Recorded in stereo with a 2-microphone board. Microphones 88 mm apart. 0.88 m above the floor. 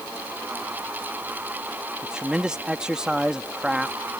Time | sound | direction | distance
2.0 | a man speaking | 10° right (ahead or behind) | ?